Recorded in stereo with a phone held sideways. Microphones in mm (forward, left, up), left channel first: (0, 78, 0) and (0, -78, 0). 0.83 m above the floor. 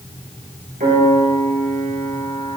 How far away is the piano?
About 4.5 m.